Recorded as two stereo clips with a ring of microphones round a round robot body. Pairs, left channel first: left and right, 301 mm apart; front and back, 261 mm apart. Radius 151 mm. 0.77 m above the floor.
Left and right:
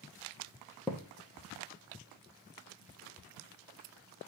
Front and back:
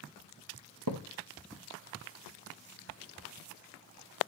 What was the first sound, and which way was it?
A thud, straight behind.